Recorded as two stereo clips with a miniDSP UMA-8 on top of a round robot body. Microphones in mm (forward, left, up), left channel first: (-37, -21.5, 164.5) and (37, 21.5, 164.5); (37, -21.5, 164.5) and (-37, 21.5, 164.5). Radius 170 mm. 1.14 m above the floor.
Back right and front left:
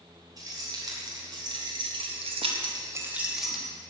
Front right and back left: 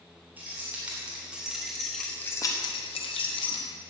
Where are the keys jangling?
80° left, 3.5 m; by 3.7 s 65° right, 1.6 m.